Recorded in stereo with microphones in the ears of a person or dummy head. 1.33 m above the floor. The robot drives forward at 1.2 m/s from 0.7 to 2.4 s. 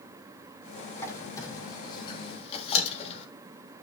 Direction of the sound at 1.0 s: 20° left (ahead or behind).